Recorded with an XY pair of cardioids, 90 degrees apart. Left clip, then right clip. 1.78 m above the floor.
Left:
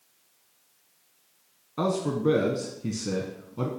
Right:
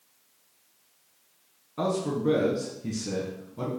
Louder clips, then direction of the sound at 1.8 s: Left 1 dB; 30° left.